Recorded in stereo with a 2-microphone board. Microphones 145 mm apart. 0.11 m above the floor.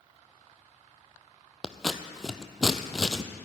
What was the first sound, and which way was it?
Scissors, 5° left (ahead or behind).